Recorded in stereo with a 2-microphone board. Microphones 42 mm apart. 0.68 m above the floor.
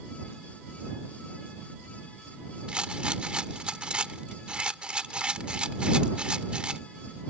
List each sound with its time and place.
2.7 s a rattle: 25° right (ahead or behind)